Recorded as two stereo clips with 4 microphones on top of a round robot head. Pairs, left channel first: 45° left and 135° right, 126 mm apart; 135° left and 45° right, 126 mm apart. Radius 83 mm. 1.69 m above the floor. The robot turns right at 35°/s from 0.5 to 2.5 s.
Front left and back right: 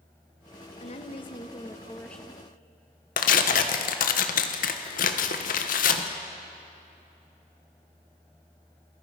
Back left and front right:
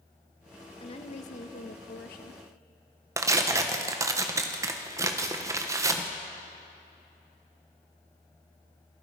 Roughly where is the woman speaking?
Left.